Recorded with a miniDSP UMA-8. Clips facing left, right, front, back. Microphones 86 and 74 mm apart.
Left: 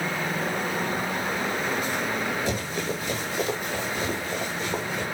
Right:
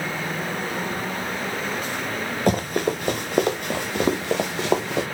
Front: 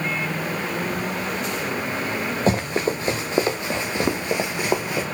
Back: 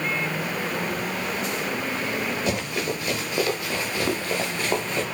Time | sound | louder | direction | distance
2.5 | running footsteps | right 7 dB, front 5 dB | 55° right | 3 m